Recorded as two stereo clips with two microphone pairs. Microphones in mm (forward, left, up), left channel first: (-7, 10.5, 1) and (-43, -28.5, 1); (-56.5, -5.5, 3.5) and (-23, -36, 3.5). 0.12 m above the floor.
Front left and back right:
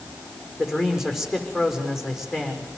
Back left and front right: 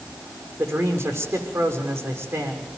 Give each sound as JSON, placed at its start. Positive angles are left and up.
{"t": 0.6, "sound": "a man speaking", "azimuth_deg": -50, "distance_m": 6.5}